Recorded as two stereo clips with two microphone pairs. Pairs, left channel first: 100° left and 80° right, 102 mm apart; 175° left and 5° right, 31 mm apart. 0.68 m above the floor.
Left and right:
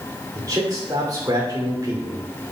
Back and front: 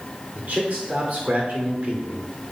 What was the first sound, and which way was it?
A man speaking, 30° right.